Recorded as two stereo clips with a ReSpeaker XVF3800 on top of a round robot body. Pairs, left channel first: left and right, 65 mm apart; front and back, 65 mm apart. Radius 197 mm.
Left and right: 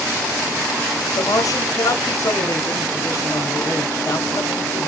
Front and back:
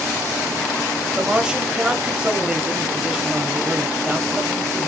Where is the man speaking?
100° left, 1.5 m.